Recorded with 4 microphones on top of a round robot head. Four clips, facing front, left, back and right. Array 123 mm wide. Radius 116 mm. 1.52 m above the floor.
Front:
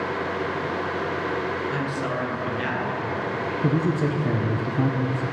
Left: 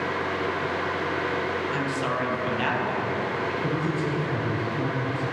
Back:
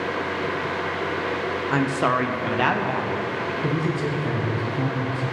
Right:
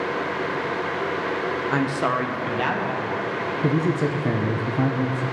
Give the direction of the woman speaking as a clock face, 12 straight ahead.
4 o'clock.